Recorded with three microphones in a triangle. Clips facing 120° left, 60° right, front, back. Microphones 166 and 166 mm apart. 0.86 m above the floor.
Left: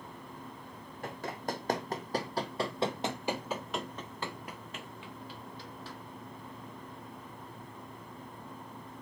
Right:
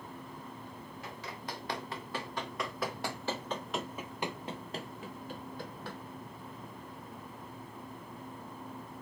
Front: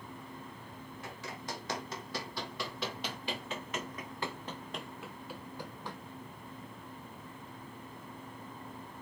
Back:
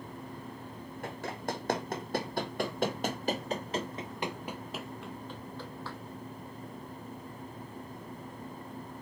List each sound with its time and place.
1.0 s running footsteps: 150° left, 2.5 m; by 6.0 s 70° right, 1.7 m